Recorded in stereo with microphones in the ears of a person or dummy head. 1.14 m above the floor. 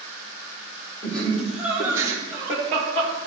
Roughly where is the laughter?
Centre.